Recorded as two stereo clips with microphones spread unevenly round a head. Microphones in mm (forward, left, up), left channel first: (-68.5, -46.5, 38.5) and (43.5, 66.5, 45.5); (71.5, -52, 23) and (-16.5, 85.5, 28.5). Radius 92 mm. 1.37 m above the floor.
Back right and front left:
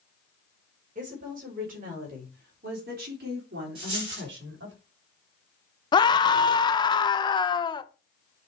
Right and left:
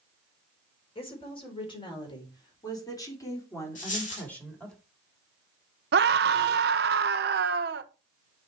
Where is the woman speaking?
Straight ahead, 4.5 m; by 4.8 s 30° left, 3 m.